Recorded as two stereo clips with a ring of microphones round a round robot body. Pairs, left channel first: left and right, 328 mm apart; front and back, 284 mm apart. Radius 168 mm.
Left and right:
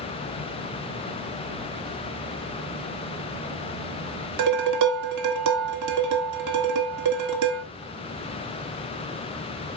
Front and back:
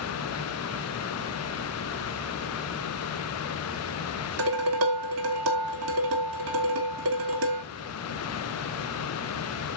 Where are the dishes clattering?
130° right, 1.7 m.